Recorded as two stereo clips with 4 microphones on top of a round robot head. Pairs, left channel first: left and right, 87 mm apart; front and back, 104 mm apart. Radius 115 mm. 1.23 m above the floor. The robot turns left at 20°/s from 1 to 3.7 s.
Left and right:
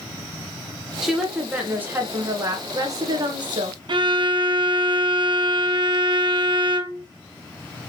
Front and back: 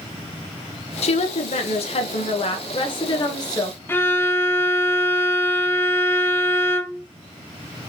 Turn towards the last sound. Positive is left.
turn(degrees=-70)